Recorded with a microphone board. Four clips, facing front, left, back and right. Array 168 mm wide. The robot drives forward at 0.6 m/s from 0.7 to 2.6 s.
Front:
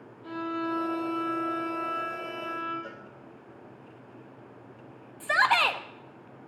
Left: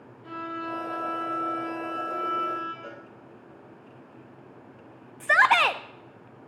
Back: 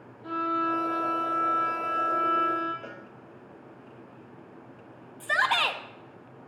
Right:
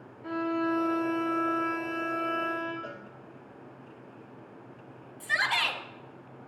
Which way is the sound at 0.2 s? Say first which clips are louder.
Right 5 dB, back 4 dB; 125° right.